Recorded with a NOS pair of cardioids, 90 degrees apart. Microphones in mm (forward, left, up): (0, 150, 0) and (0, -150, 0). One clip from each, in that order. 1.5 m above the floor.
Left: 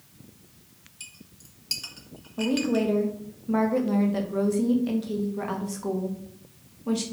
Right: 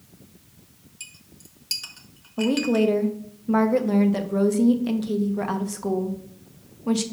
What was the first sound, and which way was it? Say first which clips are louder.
A clink: right 2 dB; 10° right.